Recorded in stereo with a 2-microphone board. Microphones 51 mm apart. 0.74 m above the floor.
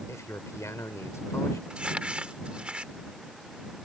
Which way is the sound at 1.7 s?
20° right (ahead or behind).